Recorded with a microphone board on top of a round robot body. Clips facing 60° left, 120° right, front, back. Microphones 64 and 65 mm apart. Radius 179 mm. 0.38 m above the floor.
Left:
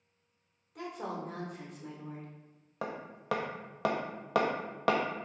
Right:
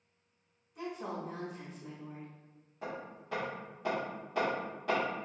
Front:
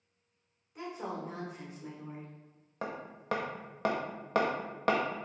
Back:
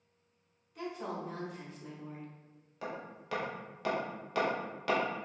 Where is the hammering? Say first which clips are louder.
Left 2 dB, front 2 dB; 50° left, 0.5 m.